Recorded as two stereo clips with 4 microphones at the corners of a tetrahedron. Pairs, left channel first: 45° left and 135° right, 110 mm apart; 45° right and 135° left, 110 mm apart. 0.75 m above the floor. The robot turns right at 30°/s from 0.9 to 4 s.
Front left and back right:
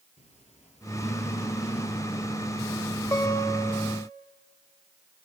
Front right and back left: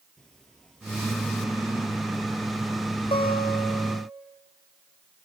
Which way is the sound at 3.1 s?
15° right.